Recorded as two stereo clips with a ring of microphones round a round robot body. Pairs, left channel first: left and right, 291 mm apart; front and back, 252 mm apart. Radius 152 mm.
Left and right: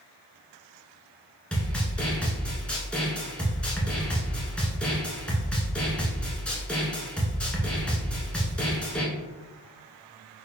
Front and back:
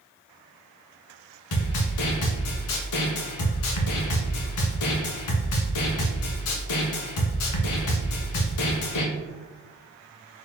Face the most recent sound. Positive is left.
turn(degrees=5)